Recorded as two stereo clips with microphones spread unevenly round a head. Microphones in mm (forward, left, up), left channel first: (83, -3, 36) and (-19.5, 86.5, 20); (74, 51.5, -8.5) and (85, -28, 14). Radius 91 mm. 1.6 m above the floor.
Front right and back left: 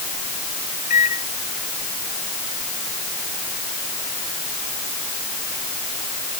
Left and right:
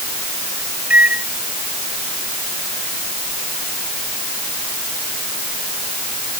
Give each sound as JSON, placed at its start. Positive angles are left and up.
{"t": 0.9, "sound": "a microwave", "azimuth_deg": -10}